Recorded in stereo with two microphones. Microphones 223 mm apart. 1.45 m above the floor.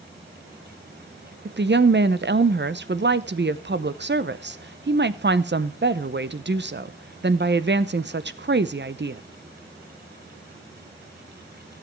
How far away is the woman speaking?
About 0.8 m.